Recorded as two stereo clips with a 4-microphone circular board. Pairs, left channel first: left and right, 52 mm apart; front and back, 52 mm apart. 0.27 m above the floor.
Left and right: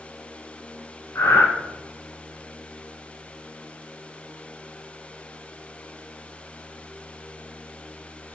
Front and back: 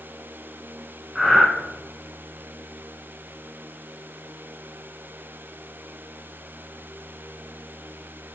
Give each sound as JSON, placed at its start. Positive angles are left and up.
{"t": 1.1, "sound": "breathing", "azimuth_deg": 90, "distance_m": 0.7}